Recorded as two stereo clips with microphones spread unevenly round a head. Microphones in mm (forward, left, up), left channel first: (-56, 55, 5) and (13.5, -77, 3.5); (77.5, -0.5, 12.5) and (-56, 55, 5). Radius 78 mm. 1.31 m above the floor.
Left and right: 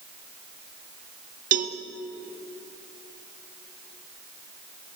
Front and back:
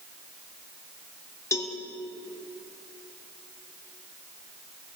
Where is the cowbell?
95° right, 1.7 m.